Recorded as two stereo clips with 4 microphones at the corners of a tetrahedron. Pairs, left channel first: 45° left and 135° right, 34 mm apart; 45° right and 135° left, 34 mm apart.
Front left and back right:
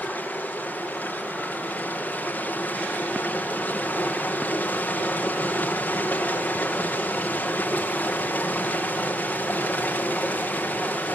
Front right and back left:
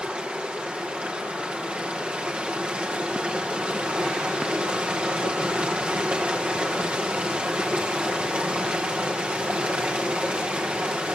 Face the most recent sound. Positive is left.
turn(degrees=85)